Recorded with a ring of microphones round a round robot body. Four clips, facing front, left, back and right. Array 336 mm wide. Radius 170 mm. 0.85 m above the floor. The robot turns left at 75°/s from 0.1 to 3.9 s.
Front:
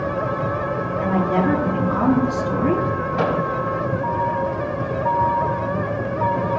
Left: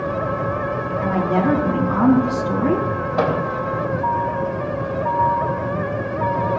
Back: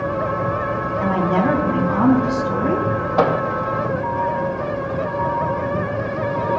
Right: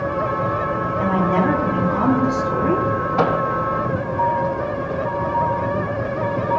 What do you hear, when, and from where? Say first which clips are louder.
1.0 s a woman speaking: even, back 1 dB; 110° right, 6 m; by 2.9 s 110° left, 6 m
3.2 s a microwave: even, back 4 dB; 150° left, 4 m; by 3.4 s 135° left, 4 m